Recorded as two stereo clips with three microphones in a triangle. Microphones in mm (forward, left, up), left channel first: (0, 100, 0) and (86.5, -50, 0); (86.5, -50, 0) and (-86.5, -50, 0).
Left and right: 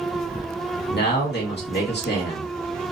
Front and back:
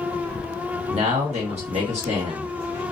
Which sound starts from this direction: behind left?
A man speaking, at 0.9 s.